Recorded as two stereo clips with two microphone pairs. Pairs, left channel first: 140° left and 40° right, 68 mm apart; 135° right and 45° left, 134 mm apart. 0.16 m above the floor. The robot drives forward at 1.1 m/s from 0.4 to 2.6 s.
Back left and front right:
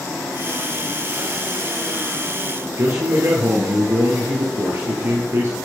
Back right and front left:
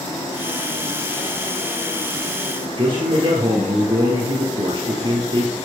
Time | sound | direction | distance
2.8 | a man speaking | straight ahead | 2.5 m